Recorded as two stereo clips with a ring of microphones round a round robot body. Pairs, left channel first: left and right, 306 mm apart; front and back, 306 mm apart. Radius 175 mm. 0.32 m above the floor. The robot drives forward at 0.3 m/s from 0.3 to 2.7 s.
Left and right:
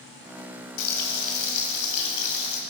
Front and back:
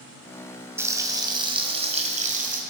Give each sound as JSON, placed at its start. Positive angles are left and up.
{"t": 0.8, "sound": "frying", "azimuth_deg": 100, "distance_m": 1.6}